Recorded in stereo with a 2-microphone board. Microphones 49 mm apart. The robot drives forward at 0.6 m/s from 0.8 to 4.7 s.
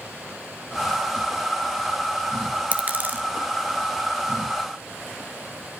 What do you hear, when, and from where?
2.7 s a dropped coin: 30° right (ahead or behind), 1.1 m; by 3.2 s 40° right (ahead or behind), 0.8 m